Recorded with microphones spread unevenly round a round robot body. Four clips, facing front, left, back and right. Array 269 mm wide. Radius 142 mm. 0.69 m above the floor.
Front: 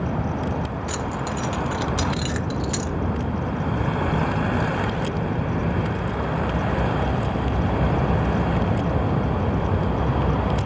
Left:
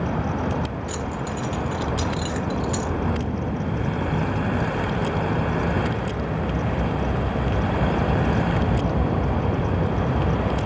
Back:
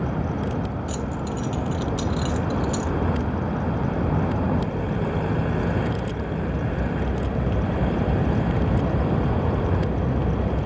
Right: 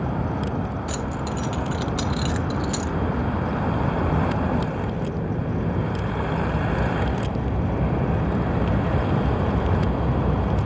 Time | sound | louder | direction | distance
0.9 | keys jangling | even, front 1 dB | 30° right | 1.1 m